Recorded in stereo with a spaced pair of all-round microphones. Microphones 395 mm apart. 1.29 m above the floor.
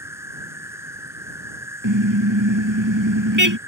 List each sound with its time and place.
0.0 s an insect: 5° right (ahead or behind)
1.8 s a car horn: 50° right (ahead or behind)